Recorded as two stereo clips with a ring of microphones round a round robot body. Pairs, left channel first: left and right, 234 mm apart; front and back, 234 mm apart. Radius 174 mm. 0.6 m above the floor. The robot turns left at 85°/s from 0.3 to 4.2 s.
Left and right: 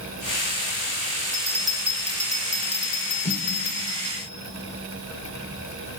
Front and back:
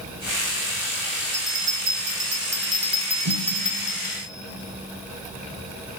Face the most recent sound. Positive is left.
turn(degrees=70)